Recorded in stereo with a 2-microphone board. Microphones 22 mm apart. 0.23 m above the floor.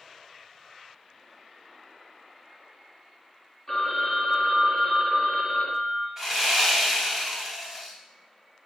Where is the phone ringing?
20° left (ahead or behind), 1.0 m.